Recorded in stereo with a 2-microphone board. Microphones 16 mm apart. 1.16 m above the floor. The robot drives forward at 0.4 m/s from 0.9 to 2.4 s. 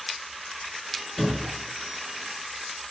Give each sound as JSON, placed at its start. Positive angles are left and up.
{"t": 1.2, "sound": "a thud", "side_deg": 35, "distance_m": 3.5}